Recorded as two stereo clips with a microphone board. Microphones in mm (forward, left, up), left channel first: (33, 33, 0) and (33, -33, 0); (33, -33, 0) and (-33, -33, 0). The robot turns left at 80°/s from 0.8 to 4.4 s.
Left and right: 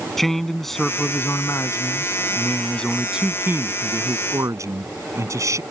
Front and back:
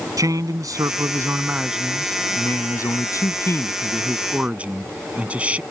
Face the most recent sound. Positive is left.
turn(degrees=-115)